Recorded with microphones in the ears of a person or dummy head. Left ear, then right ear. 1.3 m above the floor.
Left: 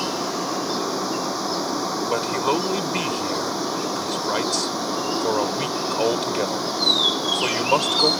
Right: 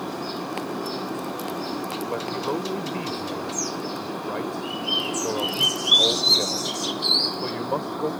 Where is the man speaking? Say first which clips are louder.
Left 6 dB; 85° left.